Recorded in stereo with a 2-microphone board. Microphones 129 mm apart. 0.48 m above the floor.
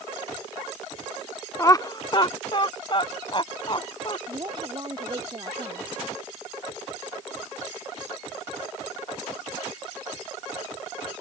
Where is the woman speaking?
35° right (ahead or behind).